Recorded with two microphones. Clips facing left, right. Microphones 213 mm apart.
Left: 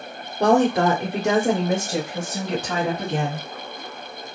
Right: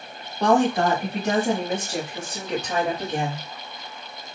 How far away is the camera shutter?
No camera shutter in this recording.